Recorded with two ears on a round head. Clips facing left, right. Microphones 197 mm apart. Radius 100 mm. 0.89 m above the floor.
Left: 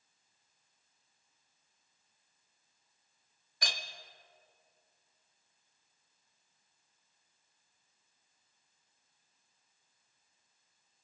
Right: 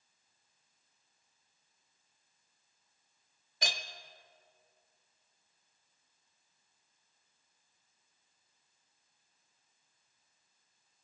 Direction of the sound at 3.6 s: 20° right (ahead or behind).